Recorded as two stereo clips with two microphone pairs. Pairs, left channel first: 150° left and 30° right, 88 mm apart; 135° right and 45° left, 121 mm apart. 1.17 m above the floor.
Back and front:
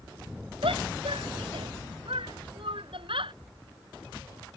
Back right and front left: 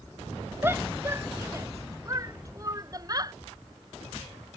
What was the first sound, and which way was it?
A shout, 25° right.